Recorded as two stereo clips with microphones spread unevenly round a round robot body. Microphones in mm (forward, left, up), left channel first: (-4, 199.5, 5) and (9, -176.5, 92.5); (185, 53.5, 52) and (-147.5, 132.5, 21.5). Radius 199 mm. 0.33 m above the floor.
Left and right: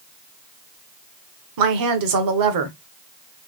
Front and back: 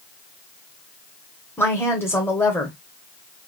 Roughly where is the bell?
No bell in this recording.